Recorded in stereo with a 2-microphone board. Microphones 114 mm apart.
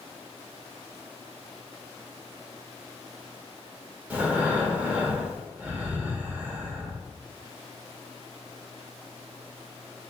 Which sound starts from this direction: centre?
Breathing, at 4.1 s.